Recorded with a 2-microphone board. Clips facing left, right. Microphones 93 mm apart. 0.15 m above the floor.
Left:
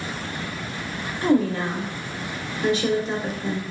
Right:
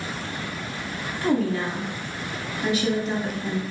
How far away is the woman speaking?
About 1.3 m.